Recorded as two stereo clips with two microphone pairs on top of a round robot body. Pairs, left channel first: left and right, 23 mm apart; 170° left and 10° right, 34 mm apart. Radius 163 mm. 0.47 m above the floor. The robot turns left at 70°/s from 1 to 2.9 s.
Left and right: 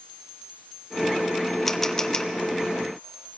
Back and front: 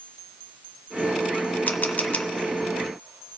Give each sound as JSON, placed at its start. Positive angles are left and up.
{"t": 1.7, "sound": "a camera shutter", "azimuth_deg": 170, "distance_m": 1.0}